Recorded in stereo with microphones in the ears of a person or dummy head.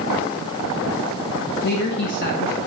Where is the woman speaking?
60° left (ahead or behind), 1.1 m.